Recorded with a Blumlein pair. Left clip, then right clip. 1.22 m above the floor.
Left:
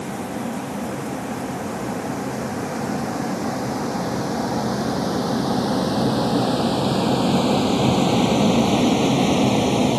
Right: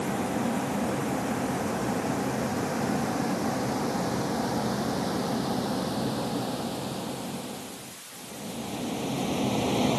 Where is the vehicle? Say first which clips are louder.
Left 1 dB; straight ahead; by 10.0 s 75° left.